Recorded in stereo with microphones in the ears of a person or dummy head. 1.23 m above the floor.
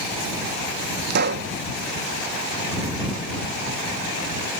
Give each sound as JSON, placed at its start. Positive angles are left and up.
{"t": 1.1, "sound": "a pop", "side_deg": -50}